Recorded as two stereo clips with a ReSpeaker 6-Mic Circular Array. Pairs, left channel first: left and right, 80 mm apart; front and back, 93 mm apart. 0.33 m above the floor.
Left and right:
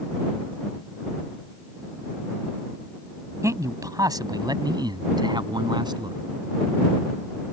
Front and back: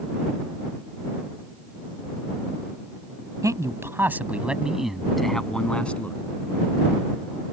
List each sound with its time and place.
3.4 s a man speaking: 135° right; by 6.2 s 75° right